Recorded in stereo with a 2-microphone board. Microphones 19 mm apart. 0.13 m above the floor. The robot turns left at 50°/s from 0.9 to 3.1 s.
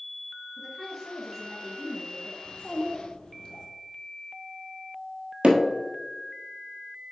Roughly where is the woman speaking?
Behind.